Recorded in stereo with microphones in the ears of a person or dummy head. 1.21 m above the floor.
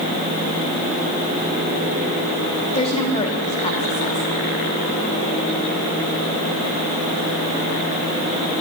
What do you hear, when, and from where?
2.7 s a woman speaking: 30° left (ahead or behind), 2.5 m